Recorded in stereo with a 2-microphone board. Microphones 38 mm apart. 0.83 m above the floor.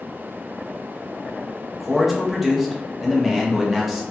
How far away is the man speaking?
About 0.6 m.